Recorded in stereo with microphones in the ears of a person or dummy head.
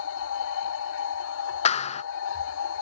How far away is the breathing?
I don't hear breathing.